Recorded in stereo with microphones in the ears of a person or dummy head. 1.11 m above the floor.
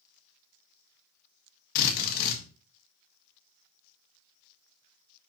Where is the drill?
50° left (ahead or behind), 1.9 m.